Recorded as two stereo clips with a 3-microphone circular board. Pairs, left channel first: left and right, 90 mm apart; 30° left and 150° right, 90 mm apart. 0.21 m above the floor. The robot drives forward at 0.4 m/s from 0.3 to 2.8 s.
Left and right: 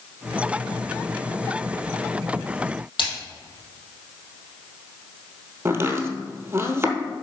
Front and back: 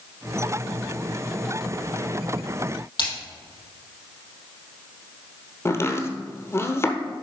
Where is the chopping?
30° right, 1.0 m.